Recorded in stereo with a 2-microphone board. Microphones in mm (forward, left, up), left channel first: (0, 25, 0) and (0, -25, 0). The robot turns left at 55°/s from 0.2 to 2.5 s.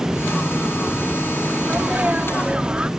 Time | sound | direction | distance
1.6 | a sneeze | 25° right (ahead or behind) | ?